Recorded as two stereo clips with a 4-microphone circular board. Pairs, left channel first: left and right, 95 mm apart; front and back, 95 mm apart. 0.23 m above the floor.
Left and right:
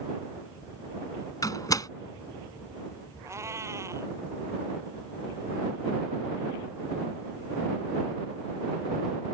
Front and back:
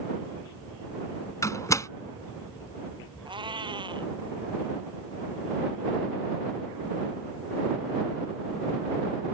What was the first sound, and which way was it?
A door slam, 50° left.